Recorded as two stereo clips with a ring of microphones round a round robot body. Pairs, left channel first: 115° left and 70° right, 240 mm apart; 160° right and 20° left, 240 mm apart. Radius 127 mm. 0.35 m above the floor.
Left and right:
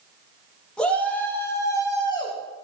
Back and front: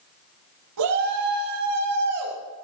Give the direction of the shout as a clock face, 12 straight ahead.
11 o'clock.